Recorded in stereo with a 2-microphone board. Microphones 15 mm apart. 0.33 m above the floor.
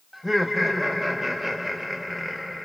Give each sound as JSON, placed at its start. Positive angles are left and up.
{"t": 0.1, "sound": "laughter", "side_deg": -10, "distance_m": 0.9}